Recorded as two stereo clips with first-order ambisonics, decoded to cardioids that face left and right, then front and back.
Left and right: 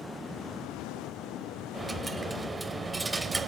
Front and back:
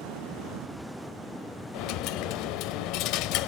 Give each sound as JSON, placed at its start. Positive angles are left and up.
{"t": 1.7, "sound": "a dropped coin", "azimuth_deg": -10, "distance_m": 0.5}